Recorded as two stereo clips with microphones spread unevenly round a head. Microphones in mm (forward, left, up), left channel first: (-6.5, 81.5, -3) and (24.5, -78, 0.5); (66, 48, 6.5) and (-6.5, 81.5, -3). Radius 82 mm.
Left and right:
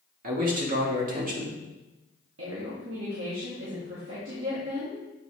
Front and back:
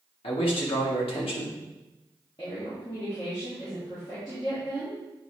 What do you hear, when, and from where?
0.2 s a man speaking: 40° right, 1.8 m
2.4 s a woman speaking: 95° right, 1.9 m